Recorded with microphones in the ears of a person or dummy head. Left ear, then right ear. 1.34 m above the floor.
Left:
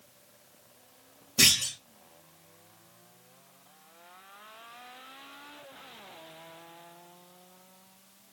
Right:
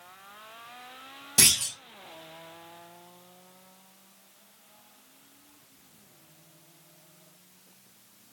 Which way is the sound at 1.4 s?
40° right (ahead or behind).